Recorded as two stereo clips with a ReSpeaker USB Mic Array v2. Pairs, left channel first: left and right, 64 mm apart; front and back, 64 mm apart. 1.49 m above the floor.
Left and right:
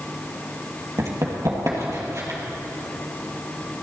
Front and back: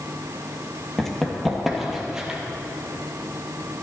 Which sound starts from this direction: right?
Running footsteps, at 1.0 s.